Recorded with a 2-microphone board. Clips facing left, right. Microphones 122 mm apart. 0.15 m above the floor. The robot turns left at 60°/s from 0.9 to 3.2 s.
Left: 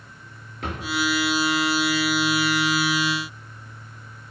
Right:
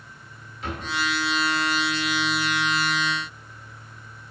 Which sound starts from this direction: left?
A drawer, at 0.6 s.